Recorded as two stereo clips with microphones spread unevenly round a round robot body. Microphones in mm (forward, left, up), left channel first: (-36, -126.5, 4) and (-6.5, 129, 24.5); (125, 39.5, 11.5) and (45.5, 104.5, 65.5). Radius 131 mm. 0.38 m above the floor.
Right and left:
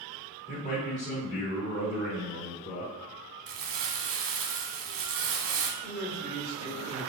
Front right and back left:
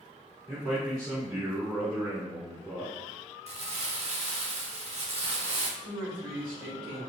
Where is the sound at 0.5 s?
125° right, 1.9 m; by 2.9 s 130° right, 3 m.